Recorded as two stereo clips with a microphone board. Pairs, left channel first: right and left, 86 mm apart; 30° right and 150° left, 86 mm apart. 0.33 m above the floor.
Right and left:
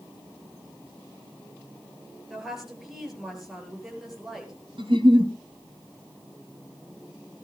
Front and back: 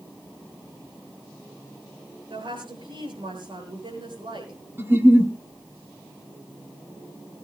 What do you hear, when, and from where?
2.3 s a woman speaking: 175° left, 7.5 m
4.8 s a giggle: 90° left, 2.0 m